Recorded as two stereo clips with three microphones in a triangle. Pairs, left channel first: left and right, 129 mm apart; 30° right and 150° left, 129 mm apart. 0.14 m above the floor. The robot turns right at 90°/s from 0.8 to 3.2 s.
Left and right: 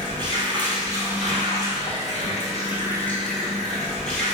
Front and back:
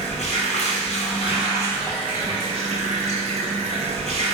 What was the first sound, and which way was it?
Running water, 45° right.